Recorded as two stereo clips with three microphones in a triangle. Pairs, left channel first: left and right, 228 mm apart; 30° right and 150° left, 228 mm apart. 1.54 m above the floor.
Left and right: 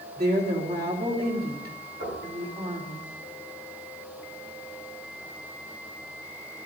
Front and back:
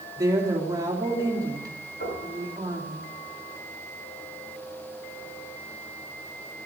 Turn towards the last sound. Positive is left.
turn(degrees=-65)